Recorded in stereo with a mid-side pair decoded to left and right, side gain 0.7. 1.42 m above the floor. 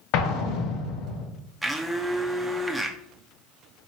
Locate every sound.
0.1 s an explosion: 65° left, 0.9 m
1.6 s a blender: 5° right, 0.6 m